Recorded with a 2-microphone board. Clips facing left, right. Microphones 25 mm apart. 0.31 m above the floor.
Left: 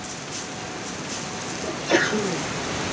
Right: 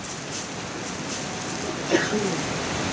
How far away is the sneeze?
About 1.1 m.